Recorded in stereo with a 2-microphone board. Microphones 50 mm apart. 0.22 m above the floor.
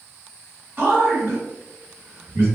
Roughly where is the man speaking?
Right.